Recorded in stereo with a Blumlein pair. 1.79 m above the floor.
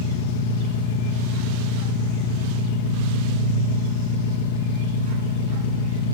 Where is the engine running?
50° left, 2.5 m.